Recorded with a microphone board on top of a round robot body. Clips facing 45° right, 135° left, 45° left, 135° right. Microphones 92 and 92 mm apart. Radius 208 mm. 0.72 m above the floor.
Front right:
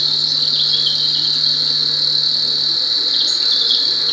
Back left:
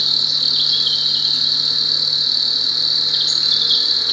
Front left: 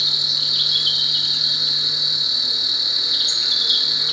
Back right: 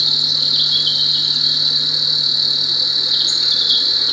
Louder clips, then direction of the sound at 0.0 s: Front right 1 dB, back right 4 dB; 70° right.